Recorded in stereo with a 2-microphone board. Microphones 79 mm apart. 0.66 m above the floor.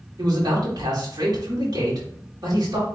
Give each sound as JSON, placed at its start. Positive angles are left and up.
{"t": 0.2, "sound": "a man speaking", "side_deg": -55, "distance_m": 2.0}